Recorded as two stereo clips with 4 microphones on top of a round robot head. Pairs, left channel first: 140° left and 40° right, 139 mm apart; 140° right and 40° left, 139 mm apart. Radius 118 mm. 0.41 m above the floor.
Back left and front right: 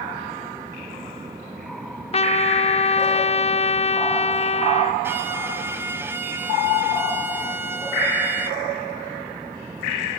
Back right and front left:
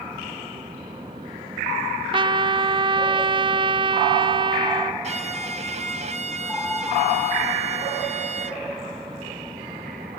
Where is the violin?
30° left, 2 m.